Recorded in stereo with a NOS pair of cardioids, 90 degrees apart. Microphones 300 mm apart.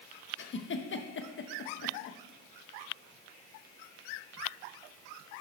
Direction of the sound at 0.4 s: 40° left.